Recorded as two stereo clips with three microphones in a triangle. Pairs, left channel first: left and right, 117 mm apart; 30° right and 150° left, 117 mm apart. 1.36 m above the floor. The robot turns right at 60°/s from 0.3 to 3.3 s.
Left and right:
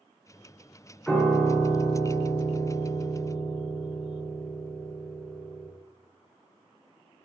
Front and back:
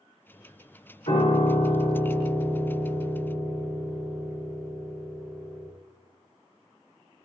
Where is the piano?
5° right, 2.5 m; by 5.7 s 130° left, 2.5 m.